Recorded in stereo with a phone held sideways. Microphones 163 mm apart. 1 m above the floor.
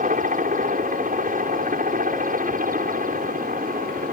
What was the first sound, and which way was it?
A helicopter, 55° right (ahead or behind).